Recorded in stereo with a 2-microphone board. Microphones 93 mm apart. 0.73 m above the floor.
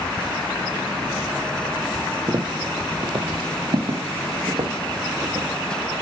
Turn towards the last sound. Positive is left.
turn(degrees=-75)  # may be behind; listen again after turning